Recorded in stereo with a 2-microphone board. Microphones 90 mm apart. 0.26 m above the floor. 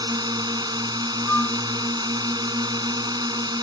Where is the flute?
20° left (ahead or behind).